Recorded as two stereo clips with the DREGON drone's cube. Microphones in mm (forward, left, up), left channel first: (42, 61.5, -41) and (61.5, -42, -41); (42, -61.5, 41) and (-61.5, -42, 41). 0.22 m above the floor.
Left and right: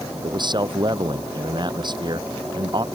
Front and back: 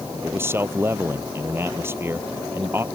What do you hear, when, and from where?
0.2 s a man speaking: 125° right